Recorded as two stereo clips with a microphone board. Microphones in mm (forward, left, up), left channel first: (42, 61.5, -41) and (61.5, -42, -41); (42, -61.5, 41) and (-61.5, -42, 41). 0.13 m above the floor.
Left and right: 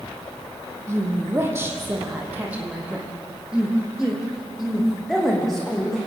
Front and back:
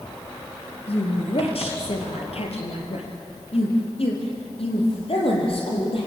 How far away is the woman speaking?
About 4 m.